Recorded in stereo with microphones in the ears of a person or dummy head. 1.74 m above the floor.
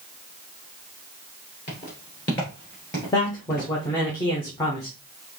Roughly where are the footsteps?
Left.